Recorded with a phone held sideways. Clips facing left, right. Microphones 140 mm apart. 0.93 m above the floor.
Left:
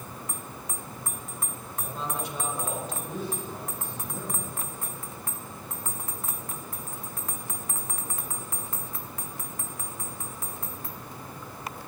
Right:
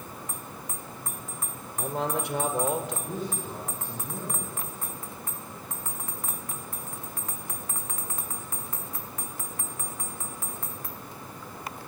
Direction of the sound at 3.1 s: 45° right (ahead or behind).